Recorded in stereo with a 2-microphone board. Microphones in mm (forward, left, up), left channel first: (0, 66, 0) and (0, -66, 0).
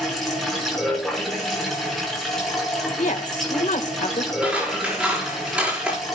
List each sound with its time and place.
0.0 s running water: centre (ahead or behind), 6.5 m
3.0 s a woman speaking: 70° left (ahead or behind), 2 m
4.4 s scissors: 10° right (ahead or behind), 6.5 m